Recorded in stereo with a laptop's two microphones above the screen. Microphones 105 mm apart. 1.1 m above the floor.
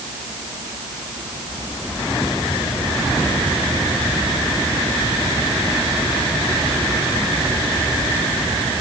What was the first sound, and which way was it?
Only background noise.